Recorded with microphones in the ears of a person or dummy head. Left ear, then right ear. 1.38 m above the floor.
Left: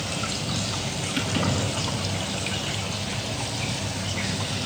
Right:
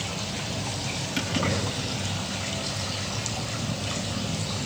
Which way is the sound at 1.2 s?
20° right (ahead or behind).